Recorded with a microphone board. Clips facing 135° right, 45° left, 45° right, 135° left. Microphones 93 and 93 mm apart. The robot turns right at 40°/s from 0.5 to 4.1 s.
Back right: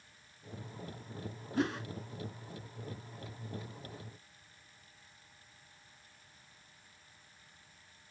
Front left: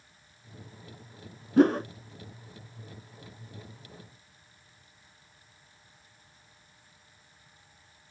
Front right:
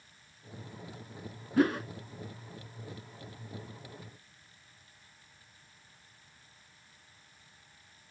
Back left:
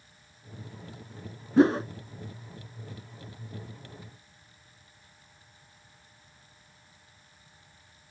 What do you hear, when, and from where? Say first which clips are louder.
1.6 s a whoosh: front left 13 dB, back left 6 dB; 70° left; by 1.9 s 85° left